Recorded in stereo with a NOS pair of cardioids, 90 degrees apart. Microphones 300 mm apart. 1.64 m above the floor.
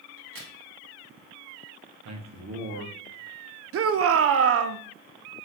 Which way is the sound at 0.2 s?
40° right.